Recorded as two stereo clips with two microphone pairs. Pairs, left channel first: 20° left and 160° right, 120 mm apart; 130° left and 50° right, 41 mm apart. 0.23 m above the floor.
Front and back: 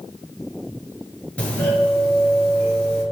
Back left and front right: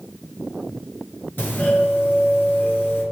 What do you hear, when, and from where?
1.4 s a doorbell: 95° left, 4.5 m